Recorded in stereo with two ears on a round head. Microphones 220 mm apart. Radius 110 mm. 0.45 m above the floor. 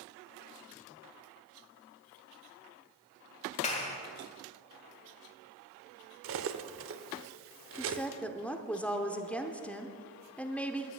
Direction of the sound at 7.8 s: 5° left (ahead or behind).